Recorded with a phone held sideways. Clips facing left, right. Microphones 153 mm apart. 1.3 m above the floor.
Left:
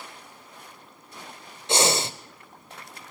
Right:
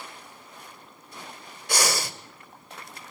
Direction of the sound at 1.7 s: 25° left (ahead or behind).